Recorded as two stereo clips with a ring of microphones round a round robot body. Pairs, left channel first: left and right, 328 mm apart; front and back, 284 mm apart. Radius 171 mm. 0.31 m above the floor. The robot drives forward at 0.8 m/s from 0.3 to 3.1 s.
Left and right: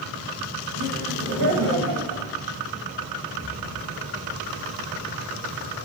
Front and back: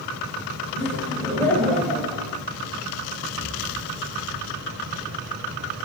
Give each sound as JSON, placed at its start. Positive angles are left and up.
{"t": 0.8, "sound": "laughter", "azimuth_deg": -65, "distance_m": 2.5}
{"t": 3.3, "sound": "an explosion", "azimuth_deg": -85, "distance_m": 6.0}